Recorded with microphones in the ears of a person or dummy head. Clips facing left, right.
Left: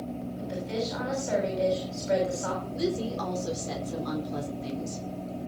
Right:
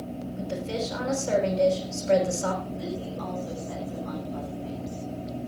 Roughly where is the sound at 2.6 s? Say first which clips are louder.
Left 4 dB; left.